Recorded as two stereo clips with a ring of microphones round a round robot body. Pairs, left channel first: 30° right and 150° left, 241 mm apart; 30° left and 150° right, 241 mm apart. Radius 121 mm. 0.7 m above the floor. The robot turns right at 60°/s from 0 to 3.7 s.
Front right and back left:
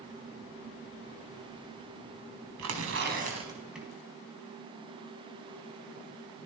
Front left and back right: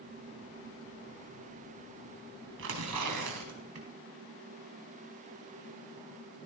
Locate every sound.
2.6 s tearing paper: 170° left, 5 m; by 3.9 s 125° right, 5 m